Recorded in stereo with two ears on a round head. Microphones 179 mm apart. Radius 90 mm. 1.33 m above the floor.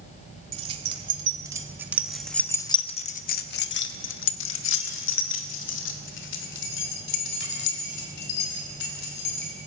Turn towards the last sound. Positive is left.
turn(degrees=60)  # may be behind; listen again after turning